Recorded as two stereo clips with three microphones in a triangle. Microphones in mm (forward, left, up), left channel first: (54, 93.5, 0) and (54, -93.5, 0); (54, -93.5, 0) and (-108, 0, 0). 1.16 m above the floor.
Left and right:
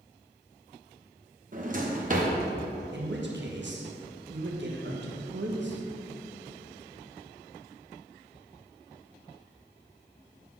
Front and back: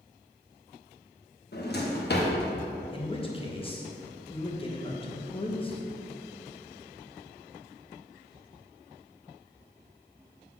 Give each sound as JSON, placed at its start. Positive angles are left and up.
{"t": 1.5, "sound": "a drawer", "azimuth_deg": -50, "distance_m": 0.8}
{"t": 2.9, "sound": "a man speaking", "azimuth_deg": -90, "distance_m": 1.0}